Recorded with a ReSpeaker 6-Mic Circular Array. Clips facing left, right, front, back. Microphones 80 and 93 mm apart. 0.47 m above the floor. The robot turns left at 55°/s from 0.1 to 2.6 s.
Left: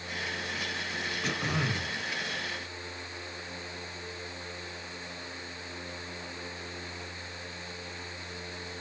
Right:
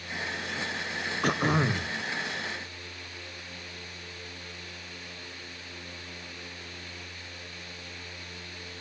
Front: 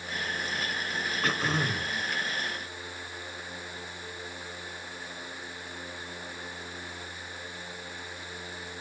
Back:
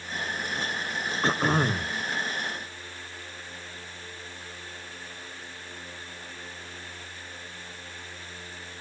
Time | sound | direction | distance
1.2 | throat clearing | 120° right | 1.0 m